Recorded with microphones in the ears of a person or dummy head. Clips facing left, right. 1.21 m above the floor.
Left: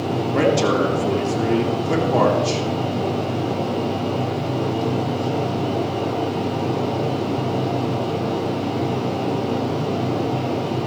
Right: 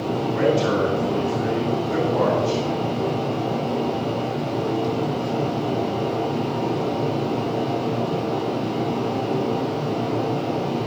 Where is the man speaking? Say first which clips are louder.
Left 2 dB; 85° left, 3 m.